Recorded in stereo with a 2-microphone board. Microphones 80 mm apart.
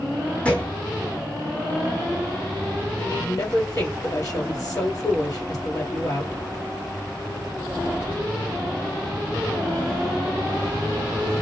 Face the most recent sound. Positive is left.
turn(degrees=40)  # may be behind; listen again after turning